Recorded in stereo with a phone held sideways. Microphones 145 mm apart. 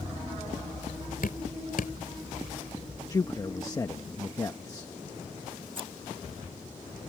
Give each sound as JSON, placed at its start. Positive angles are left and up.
{"t": 1.2, "sound": "dripping", "side_deg": 80}
{"t": 3.1, "sound": "a man speaking", "side_deg": 25}
{"t": 5.8, "sound": "scissors", "side_deg": -35}